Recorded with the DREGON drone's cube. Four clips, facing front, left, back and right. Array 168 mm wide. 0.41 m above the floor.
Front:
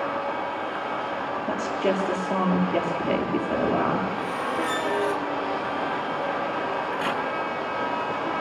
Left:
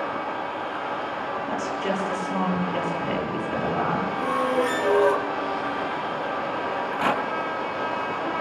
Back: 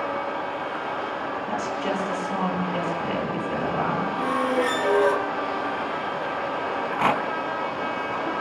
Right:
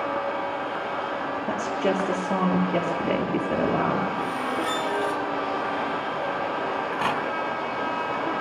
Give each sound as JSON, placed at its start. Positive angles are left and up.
{"t": 1.5, "sound": "a woman speaking", "azimuth_deg": -70, "distance_m": 8.5}
{"t": 4.2, "sound": "a squeak", "azimuth_deg": 150, "distance_m": 3.0}
{"t": 6.7, "sound": "a rattle", "azimuth_deg": -175, "distance_m": 4.0}